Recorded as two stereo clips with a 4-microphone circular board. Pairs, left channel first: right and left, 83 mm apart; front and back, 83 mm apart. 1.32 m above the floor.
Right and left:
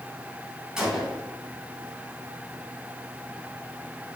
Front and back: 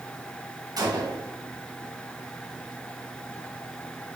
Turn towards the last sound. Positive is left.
turn(degrees=170)